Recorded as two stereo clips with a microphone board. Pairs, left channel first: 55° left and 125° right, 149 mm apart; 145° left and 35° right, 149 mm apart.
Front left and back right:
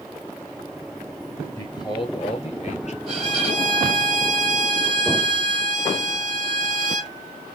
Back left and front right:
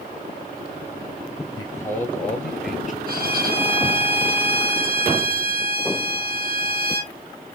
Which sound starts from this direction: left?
A man speaking, at 1.6 s.